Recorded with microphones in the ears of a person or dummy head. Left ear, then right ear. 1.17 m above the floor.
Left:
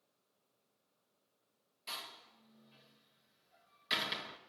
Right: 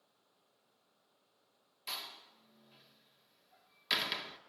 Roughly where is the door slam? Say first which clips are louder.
Right 2 dB; centre.